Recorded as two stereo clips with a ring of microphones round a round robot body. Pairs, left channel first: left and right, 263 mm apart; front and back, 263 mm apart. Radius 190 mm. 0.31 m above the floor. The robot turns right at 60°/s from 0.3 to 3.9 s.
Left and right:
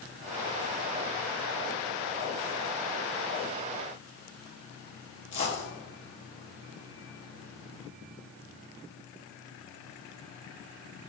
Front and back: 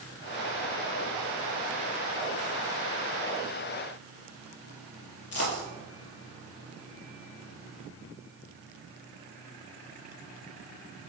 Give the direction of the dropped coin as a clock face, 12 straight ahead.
11 o'clock.